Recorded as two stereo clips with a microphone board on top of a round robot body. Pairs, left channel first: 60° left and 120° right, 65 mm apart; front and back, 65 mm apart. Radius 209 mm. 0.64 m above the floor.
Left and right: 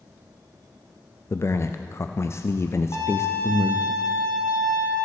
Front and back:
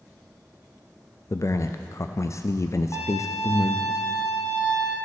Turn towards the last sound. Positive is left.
turn(degrees=50)